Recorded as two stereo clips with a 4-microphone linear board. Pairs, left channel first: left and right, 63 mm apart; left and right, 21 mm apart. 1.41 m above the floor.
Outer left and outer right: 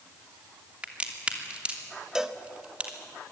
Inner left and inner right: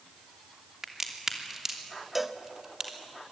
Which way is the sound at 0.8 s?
20° right (ahead or behind).